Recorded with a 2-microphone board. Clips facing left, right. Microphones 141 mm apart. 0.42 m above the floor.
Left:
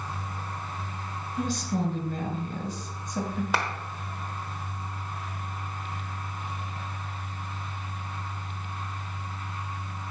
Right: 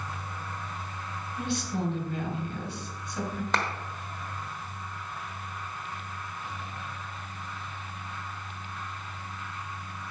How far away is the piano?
I don't hear a piano.